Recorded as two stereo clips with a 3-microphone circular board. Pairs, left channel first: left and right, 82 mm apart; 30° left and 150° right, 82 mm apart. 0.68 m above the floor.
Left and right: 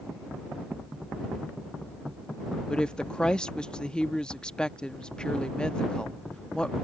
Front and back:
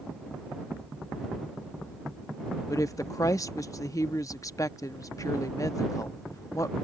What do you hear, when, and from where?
2.7 s a woman speaking: 20° left